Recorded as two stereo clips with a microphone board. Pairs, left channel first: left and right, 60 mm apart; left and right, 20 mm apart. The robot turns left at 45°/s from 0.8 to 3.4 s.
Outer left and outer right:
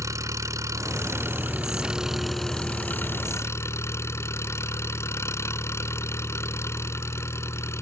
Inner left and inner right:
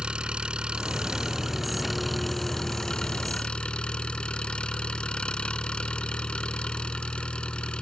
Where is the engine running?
115° right; by 7.8 s 125° left.